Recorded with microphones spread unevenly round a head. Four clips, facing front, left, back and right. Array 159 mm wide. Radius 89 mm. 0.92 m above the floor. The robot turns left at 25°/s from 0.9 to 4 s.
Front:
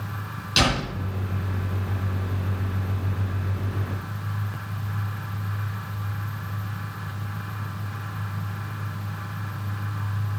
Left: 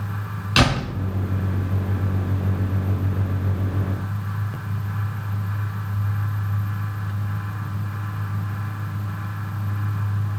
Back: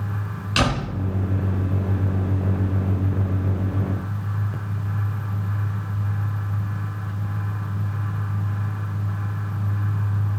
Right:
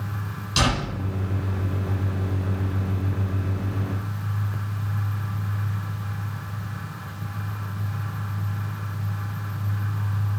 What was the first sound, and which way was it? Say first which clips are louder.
A door slam: left 4 dB, back 1 dB; 110° left.